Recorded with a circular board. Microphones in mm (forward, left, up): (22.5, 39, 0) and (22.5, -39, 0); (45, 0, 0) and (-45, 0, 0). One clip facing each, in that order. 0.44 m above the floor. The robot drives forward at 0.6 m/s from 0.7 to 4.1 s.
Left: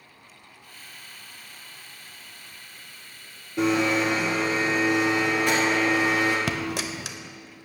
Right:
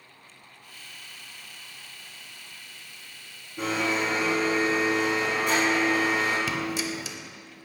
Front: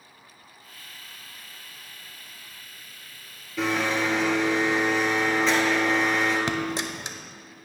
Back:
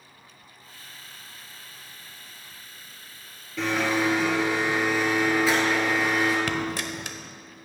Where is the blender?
85° left, 1.8 m; by 6.4 s 100° left, 1.8 m.